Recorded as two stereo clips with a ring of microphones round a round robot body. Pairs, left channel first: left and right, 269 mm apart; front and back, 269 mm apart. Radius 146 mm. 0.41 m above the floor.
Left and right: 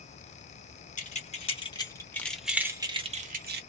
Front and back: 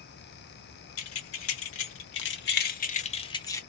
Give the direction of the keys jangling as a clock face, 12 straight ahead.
11 o'clock.